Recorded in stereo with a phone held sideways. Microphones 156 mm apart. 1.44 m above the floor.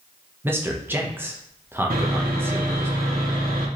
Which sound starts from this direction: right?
Sawing, at 1.9 s.